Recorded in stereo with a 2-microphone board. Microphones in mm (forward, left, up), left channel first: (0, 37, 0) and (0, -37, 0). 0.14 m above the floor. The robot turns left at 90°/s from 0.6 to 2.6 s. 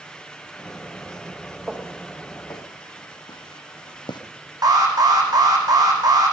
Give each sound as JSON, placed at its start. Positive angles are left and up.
{"t": 1.7, "sound": "footsteps", "side_deg": -5, "distance_m": 4.5}
{"t": 4.6, "sound": "an alarm", "side_deg": -60, "distance_m": 4.5}